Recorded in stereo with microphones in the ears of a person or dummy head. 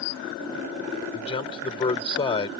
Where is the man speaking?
25° left (ahead or behind).